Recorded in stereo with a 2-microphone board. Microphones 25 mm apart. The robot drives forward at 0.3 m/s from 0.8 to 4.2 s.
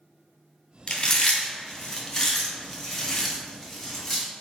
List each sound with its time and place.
0.9 s chewing: 40° left (ahead or behind), 0.6 m; by 4.2 s 20° left (ahead or behind), 1.4 m